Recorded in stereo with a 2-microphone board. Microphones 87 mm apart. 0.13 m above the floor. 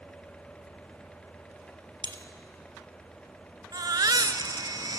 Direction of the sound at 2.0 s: 65° right (ahead or behind).